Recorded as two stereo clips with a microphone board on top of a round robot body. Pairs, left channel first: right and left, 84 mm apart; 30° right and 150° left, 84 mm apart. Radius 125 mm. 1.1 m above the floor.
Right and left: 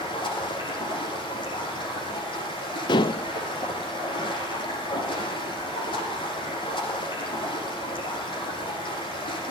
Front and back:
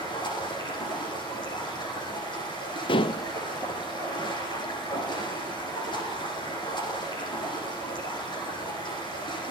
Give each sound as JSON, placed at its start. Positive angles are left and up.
{"t": 0.0, "sound": "running water", "azimuth_deg": -60, "distance_m": 9.0}
{"t": 2.9, "sound": "dishes clattering", "azimuth_deg": -55, "distance_m": 0.5}